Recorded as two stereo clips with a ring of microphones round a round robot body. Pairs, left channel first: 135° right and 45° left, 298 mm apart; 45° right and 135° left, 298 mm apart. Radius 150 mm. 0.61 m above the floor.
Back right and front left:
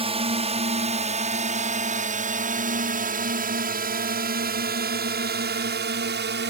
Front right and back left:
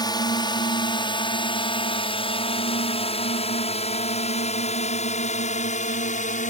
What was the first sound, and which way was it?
A drone, 10° left.